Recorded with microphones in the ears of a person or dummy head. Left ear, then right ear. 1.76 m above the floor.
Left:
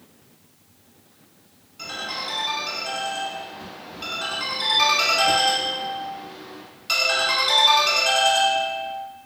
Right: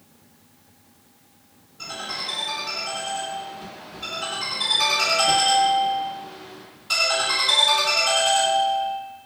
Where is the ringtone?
35° left (ahead or behind), 1.4 m.